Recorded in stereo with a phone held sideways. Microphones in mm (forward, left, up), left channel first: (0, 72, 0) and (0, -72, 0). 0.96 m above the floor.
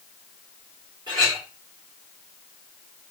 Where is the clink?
35° right (ahead or behind), 2 m.